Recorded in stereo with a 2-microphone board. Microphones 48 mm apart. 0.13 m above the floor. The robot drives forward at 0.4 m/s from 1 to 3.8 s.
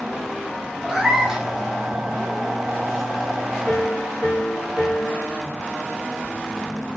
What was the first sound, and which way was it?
A cat meowing, 10° right (ahead or behind).